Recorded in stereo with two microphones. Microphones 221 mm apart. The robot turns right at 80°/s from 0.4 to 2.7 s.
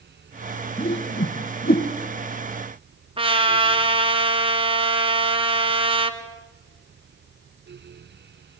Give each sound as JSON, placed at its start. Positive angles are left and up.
{"t": 0.8, "sound": "a whoosh", "side_deg": 20, "distance_m": 1.4}
{"t": 3.2, "sound": "a trumpet", "side_deg": -25, "distance_m": 1.8}